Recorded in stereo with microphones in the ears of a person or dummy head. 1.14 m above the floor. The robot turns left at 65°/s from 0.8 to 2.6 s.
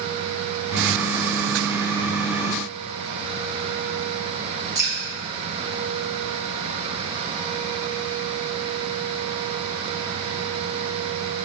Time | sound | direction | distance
4.8 | dripping | 15° right (ahead or behind) | 1.9 m